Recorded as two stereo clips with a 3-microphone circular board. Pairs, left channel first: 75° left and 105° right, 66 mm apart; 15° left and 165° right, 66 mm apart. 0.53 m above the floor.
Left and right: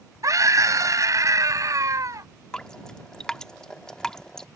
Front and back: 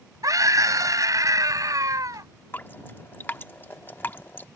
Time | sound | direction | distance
0.2 | a scream | 135° right | ?
2.5 | dripping | 10° left | ?